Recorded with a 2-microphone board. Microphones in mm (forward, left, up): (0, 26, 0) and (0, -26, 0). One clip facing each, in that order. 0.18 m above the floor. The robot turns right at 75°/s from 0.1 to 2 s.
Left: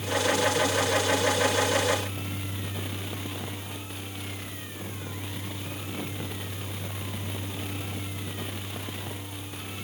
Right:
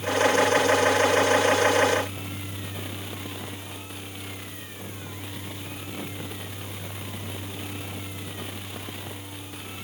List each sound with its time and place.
Only background noise.